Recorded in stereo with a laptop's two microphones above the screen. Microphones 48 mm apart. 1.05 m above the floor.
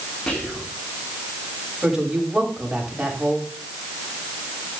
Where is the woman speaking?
10° right (ahead or behind), 7.5 m.